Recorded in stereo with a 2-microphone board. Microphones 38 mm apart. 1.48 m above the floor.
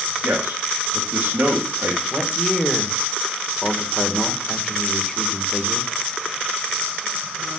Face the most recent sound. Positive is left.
turn(degrees=15)  # may be behind; listen again after turning